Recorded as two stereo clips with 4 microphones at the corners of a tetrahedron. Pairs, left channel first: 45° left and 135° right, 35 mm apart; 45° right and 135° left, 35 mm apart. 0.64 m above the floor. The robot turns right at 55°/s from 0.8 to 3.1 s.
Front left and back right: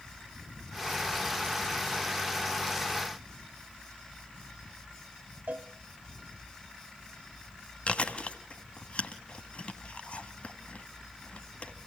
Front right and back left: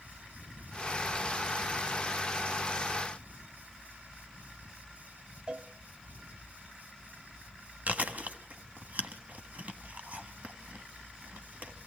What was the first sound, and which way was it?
A cowbell, 165° right.